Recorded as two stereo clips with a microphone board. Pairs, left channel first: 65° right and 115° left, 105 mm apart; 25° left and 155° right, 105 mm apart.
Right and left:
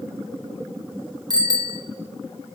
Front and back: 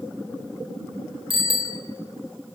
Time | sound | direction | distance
1.3 | a bicycle bell | 165° left | 4 m